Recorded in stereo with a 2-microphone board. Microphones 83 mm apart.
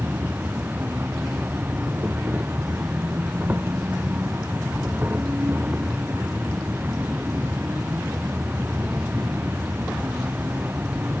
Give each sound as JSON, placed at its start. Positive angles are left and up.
{"t": 0.0, "sound": "an insect", "side_deg": -20}